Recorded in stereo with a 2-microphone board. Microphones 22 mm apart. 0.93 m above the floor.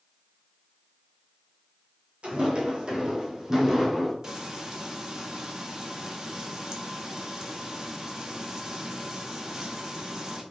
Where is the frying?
35° right (ahead or behind), 1.0 m.